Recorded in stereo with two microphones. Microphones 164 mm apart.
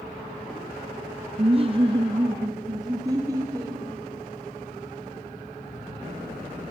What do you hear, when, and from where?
1.4 s laughter: 35° right (ahead or behind), 0.6 m; by 3.8 s 20° right (ahead or behind), 2.5 m